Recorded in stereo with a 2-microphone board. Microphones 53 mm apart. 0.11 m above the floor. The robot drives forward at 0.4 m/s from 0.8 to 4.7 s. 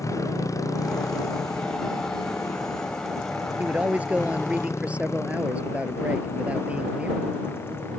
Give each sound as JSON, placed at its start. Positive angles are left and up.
{"t": 0.0, "sound": "a motorcycle", "side_deg": 75}
{"t": 3.6, "sound": "a man speaking", "side_deg": -25}